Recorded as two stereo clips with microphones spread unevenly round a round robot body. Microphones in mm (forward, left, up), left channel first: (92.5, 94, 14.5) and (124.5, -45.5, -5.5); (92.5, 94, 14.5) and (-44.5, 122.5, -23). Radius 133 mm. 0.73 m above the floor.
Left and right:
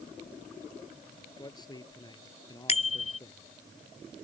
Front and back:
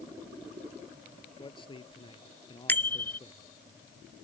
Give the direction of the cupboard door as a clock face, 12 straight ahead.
No cupboard door in this recording.